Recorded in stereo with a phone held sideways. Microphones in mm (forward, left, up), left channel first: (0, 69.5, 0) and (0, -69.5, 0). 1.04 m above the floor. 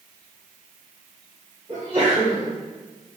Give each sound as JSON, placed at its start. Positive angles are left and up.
{"t": 1.7, "sound": "a sneeze", "side_deg": -45, "distance_m": 1.9}